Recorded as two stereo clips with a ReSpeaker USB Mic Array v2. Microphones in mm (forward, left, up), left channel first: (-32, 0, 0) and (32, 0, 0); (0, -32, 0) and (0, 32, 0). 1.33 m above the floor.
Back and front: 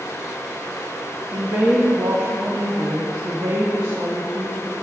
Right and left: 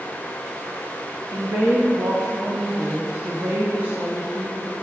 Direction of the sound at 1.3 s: 35° left.